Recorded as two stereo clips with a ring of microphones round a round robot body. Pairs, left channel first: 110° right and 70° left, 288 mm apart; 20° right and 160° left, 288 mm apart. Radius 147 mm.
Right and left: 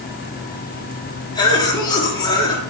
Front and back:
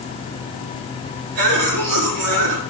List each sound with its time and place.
1.4 s a cough: 170° left, 4.5 m